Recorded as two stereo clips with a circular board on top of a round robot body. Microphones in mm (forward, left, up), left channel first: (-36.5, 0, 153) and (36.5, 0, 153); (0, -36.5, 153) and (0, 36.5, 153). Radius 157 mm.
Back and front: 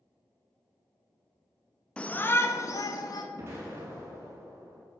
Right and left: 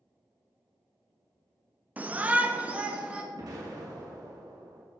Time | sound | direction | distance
2.0 | a shout | 120° left | 0.9 m
3.3 | an explosion | 55° left | 2.5 m